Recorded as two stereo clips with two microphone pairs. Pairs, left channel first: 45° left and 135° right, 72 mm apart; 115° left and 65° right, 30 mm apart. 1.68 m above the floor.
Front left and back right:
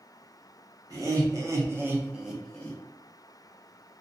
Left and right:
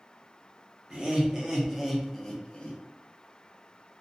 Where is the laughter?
115° right, 1.0 m; by 2.8 s 100° left, 0.6 m.